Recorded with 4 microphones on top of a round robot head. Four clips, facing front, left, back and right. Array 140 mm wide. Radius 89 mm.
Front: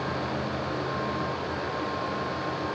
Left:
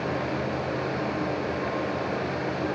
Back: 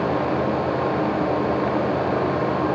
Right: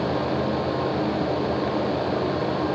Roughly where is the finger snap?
No finger snap in this recording.